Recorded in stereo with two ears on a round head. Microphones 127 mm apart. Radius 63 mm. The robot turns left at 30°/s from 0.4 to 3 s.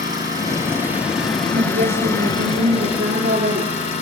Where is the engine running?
150° right, 7.5 m; by 4.0 s 130° left, 7.5 m.